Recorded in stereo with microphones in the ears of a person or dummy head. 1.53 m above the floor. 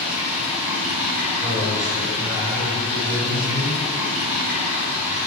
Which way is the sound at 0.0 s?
15° right (ahead or behind).